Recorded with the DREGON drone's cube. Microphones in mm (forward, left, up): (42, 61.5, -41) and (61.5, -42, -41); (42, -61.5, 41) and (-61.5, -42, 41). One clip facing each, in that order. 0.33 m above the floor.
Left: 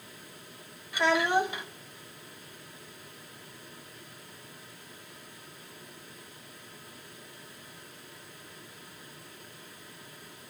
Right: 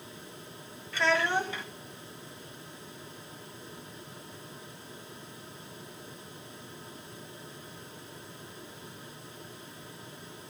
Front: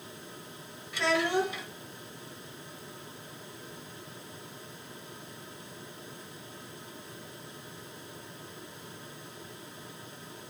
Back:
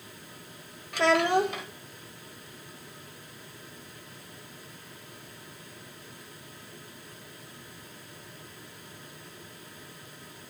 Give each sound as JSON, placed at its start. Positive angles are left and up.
{"t": 0.9, "sound": "a child speaking", "azimuth_deg": 170, "distance_m": 0.8}